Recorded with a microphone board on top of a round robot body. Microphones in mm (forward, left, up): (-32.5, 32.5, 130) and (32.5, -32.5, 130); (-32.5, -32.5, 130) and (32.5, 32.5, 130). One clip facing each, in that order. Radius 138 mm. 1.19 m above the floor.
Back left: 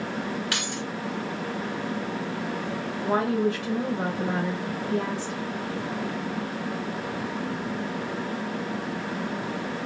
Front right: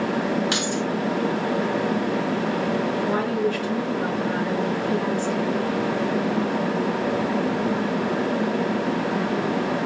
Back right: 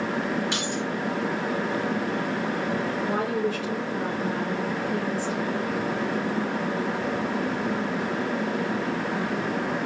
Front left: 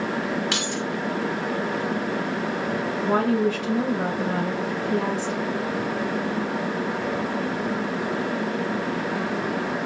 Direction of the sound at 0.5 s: 25° left.